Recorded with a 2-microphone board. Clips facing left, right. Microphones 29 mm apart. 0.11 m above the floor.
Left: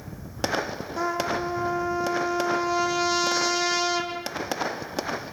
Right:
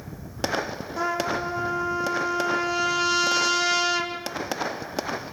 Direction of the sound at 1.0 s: Centre (ahead or behind).